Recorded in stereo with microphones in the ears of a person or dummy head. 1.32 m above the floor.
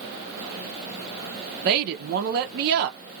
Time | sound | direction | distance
1.6 | a woman speaking | 55° right (ahead or behind) | 0.7 m